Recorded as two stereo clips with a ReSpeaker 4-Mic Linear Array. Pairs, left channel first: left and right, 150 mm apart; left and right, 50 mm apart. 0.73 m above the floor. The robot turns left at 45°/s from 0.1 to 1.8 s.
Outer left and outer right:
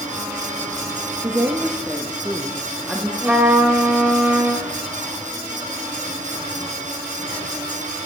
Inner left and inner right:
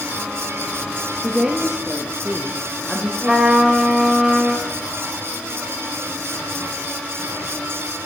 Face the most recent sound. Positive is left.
turn(degrees=-5)  # may be behind; listen again after turning